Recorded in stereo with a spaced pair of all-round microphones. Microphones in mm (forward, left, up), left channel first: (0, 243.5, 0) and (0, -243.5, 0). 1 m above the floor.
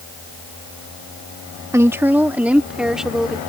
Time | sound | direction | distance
1.7 | a woman speaking | 5° right (ahead or behind) | ?